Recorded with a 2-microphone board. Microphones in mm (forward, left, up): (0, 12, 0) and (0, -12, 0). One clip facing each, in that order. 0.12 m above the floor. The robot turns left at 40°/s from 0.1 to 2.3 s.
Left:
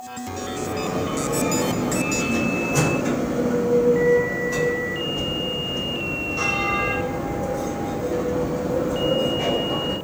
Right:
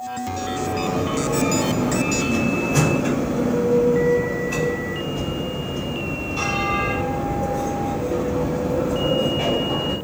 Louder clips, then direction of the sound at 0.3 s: Right 2 dB; 10° right.